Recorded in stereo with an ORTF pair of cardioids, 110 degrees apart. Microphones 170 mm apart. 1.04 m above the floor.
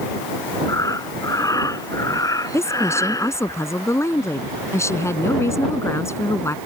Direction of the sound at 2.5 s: 15° left.